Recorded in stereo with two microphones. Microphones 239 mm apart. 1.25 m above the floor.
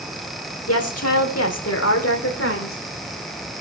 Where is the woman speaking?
75° left (ahead or behind), 3.5 m; by 2.8 s 60° left (ahead or behind), 3.5 m.